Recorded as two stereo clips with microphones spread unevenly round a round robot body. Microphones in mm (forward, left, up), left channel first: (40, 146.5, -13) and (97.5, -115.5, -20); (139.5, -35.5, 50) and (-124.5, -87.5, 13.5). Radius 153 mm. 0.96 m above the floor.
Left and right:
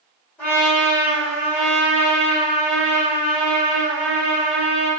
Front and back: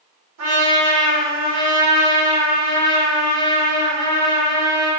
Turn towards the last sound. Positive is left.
turn(degrees=-175)